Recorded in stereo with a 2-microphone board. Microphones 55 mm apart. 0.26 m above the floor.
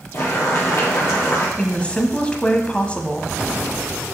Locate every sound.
0.1 s boiling: 50° left (ahead or behind), 4.5 m
1.6 s a woman speaking: 20° left (ahead or behind), 1.3 m